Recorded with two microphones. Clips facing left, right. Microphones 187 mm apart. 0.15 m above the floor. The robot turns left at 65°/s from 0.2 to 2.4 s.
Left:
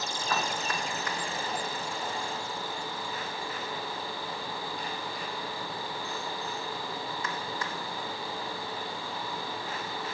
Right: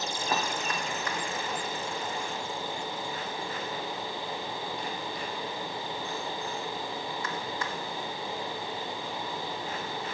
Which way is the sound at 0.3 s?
25° right (ahead or behind).